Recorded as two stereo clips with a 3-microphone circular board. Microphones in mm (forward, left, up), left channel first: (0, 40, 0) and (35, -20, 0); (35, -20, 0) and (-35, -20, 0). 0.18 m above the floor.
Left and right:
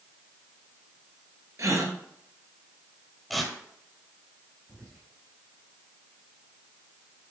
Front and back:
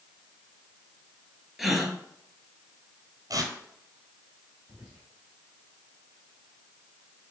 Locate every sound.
1.6 s a gasp: 90° right, 1.3 m
3.3 s tearing paper: 150° right, 1.2 m
4.7 s whispering: 85° right, 2 m